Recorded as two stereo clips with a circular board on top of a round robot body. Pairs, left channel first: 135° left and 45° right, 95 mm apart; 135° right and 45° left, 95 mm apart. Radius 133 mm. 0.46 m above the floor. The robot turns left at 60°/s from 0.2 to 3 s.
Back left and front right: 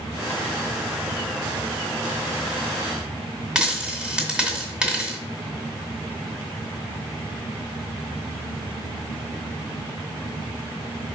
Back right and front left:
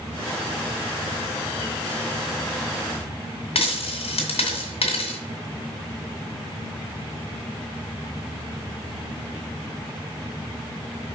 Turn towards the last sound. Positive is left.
turn(degrees=-130)